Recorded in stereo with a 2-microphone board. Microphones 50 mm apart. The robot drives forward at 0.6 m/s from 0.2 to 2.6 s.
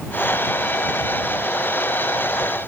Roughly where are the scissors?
I don't hear scissors.